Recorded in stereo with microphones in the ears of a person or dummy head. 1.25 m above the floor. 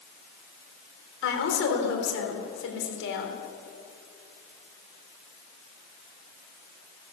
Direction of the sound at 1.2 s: 70° left (ahead or behind).